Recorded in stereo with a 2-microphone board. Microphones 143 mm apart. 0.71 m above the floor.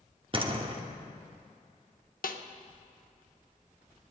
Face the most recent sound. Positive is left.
turn(degrees=80)